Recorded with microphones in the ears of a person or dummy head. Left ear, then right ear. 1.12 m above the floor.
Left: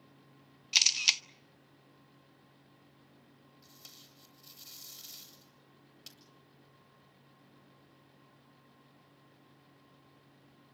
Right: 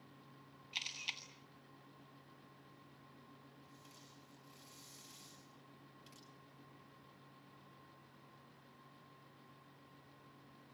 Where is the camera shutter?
60° left (ahead or behind), 0.8 m.